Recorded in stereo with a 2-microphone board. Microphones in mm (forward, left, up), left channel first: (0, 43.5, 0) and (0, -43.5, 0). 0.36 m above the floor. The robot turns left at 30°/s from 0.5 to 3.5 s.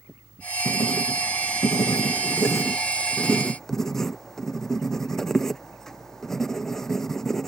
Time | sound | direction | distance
0.7 | writing | 90° left | ?